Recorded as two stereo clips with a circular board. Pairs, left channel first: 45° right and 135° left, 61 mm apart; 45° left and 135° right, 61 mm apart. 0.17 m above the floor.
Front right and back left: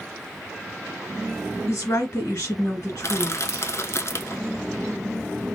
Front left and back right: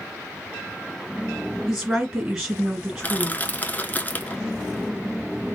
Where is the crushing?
15° right, 0.6 m.